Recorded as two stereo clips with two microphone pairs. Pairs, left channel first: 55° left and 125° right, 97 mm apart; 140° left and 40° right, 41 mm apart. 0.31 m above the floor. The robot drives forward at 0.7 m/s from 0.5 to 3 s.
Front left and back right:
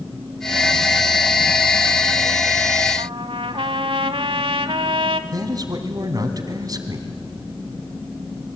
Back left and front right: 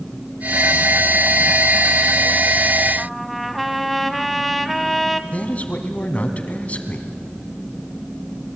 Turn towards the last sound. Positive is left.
turn(degrees=-170)